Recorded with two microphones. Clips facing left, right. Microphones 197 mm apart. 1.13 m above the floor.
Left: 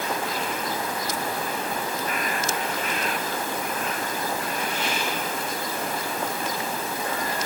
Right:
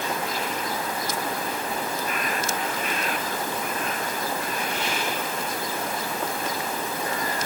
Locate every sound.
Only background noise.